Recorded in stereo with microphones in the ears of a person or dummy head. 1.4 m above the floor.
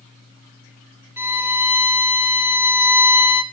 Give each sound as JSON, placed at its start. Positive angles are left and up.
{"t": 1.2, "sound": "a violin", "side_deg": -15, "distance_m": 4.0}